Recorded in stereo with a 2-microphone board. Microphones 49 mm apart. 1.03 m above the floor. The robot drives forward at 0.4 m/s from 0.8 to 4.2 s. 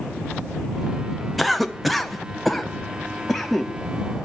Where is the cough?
Centre (ahead or behind), 0.6 m.